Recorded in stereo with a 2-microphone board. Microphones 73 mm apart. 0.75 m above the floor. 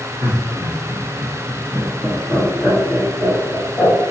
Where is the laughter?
30° right (ahead or behind), 1.1 m; by 3.9 s 50° left (ahead or behind), 1.6 m.